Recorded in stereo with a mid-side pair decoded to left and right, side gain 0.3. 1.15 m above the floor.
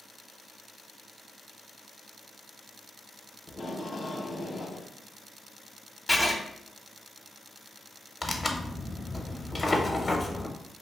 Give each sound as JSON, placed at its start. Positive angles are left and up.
{"t": 3.5, "sound": "tape being pulled", "azimuth_deg": 50, "distance_m": 0.7}
{"t": 6.1, "sound": "writing", "azimuth_deg": 10, "distance_m": 0.7}
{"t": 8.2, "sound": "tearing paper", "azimuth_deg": 40, "distance_m": 0.6}